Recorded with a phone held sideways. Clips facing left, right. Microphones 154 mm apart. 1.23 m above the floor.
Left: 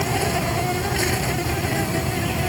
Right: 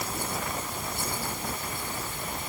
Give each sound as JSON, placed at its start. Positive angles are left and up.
{"t": 0.0, "sound": "an insect", "side_deg": 90}